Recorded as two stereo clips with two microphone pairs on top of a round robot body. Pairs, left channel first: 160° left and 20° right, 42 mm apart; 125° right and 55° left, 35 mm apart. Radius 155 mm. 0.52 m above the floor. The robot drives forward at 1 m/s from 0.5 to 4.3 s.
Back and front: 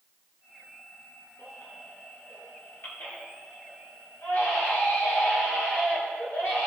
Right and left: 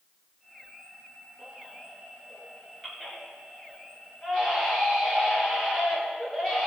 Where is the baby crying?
125° left, 2.5 m; by 6.7 s 155° left, 4.5 m.